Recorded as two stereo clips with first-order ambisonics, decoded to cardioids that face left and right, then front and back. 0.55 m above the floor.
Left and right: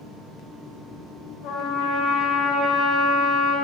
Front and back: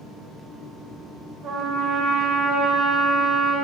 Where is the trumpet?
130° left, 1.8 m.